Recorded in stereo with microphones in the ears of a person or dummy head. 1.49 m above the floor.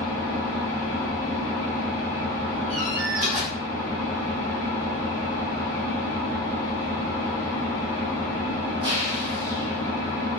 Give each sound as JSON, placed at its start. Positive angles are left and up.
{"t": 0.0, "sound": "an engine running", "side_deg": -25, "distance_m": 0.9}
{"t": 2.7, "sound": "a door slam", "side_deg": -35, "distance_m": 1.1}